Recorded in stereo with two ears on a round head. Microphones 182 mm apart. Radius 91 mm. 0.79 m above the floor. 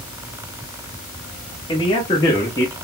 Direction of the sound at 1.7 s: 20° left (ahead or behind).